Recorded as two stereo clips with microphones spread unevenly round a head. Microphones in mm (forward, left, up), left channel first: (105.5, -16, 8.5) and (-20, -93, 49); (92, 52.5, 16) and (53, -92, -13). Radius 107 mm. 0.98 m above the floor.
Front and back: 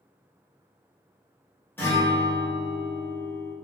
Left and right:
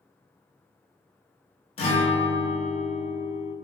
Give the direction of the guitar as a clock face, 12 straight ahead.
8 o'clock.